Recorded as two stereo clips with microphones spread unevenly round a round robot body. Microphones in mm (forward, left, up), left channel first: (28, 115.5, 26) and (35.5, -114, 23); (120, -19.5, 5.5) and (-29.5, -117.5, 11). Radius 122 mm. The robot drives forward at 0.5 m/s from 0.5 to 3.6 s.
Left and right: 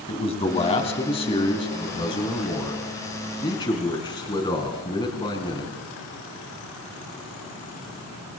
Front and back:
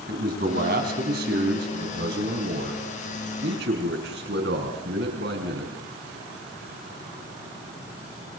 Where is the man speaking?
160° left, 4 m; by 5.7 s 165° left, 5.5 m.